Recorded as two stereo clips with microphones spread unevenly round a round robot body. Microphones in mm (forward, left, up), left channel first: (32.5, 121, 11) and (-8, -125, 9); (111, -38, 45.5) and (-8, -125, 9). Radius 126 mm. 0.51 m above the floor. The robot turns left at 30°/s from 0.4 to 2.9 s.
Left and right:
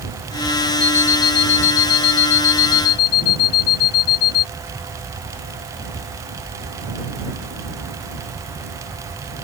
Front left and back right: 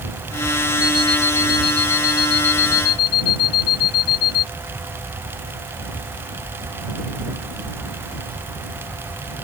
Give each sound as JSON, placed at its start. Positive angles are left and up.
{"t": 0.8, "sound": "an alarm clock", "azimuth_deg": 150}